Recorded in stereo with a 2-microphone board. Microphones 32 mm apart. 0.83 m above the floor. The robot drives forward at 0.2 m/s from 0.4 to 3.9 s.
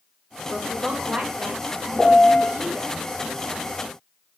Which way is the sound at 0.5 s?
40° right (ahead or behind).